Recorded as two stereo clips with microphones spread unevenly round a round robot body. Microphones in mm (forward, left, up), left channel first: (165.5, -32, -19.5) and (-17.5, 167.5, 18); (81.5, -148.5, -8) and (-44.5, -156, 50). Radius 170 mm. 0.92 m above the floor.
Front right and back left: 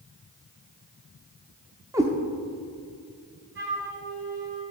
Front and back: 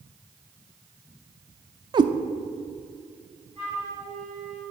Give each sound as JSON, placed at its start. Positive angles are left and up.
{"t": 1.9, "sound": "a cat meowing", "azimuth_deg": -155, "distance_m": 0.6}
{"t": 3.5, "sound": "a flute", "azimuth_deg": 85, "distance_m": 3.5}